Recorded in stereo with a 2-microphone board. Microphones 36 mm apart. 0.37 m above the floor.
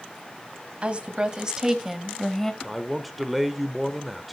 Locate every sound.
0.8 s a woman speaking: 35° right (ahead or behind), 1.9 m; by 2.5 s 10° left (ahead or behind), 1.5 m
2.6 s a man speaking: centre (ahead or behind), 0.8 m